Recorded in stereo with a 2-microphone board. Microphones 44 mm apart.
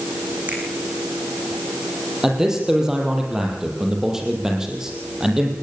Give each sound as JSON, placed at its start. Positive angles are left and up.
{"t": 0.5, "sound": "a finger snap", "side_deg": -40, "distance_m": 8.5}
{"t": 2.2, "sound": "a man speaking", "side_deg": -10, "distance_m": 6.5}